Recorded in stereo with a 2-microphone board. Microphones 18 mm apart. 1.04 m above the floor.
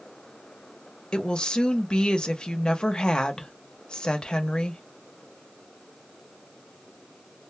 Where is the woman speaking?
55° left (ahead or behind), 0.7 m.